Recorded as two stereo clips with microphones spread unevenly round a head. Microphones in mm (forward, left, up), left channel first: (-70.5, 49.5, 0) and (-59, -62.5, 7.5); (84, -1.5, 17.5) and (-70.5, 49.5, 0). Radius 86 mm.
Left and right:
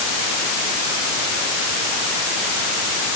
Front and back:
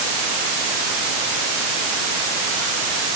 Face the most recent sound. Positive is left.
No sound to turn to.